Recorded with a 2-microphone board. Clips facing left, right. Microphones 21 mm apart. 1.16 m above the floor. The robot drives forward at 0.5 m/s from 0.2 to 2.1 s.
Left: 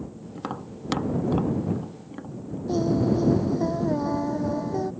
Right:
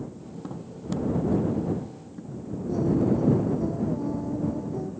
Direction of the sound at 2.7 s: 55° left (ahead or behind).